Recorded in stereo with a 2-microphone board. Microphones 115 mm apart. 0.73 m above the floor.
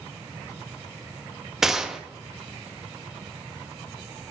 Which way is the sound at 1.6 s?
5° right (ahead or behind).